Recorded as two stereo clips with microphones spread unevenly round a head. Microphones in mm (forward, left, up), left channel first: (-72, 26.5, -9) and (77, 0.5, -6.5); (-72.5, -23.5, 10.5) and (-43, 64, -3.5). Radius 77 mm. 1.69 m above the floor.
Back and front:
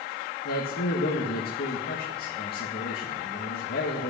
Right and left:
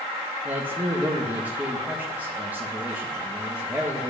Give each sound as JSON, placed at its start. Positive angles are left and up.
{"t": 0.5, "sound": "a man speaking", "azimuth_deg": 145, "distance_m": 2.0}